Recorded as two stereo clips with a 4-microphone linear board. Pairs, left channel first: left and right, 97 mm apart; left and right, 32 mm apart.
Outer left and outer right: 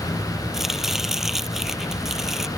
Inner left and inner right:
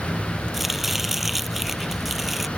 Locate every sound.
0.5 s chopping: 5° right (ahead or behind)